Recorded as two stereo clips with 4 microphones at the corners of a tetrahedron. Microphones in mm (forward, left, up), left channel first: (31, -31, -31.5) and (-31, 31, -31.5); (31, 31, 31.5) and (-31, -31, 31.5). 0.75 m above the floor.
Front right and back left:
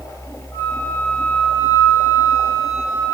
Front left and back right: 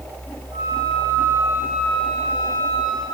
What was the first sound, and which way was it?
A flute, 95° right.